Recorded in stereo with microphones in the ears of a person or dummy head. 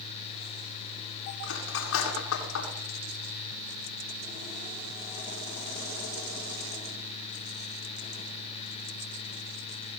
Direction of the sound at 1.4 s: 85° left.